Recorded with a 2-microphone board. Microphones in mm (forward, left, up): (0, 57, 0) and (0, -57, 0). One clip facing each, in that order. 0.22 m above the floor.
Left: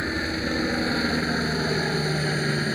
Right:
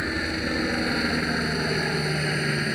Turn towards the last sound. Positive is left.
turn(degrees=5)  # may be behind; listen again after turning